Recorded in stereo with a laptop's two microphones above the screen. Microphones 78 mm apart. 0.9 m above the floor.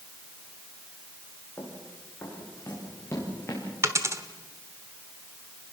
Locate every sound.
1.6 s running footsteps: 25° left (ahead or behind), 6 m; by 3.6 s 35° left (ahead or behind), 6 m
3.8 s a dropped coin: 35° right (ahead or behind), 1.0 m